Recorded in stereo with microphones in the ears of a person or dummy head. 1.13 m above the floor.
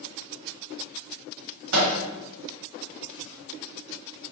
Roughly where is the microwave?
Right.